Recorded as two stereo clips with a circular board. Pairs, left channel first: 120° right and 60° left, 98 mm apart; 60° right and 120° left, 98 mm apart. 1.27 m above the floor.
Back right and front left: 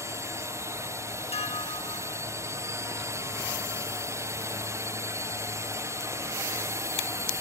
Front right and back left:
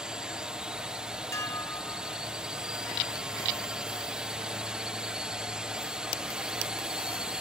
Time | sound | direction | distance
0.0 | a drone | 45° left | ?
1.3 | dishes clattering | 120° right | ?